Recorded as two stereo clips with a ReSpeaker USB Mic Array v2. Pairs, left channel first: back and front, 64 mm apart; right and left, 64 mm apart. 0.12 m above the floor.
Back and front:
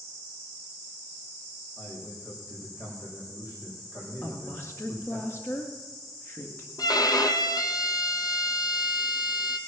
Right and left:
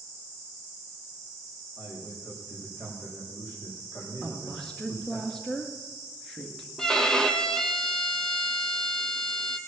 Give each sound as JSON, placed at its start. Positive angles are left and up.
{"t": 1.8, "sound": "a man speaking", "azimuth_deg": -145, "distance_m": 5.0}
{"t": 4.2, "sound": "a woman speaking", "azimuth_deg": -170, "distance_m": 1.8}
{"t": 6.8, "sound": "a violin", "azimuth_deg": -170, "distance_m": 0.8}